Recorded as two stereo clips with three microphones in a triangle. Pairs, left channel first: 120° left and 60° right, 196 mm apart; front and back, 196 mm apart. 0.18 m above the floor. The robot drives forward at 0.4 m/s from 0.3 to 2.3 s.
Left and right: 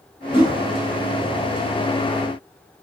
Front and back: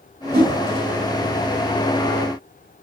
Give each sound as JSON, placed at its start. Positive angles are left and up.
{"t": 0.3, "sound": "a whoosh", "azimuth_deg": 175, "distance_m": 2.5}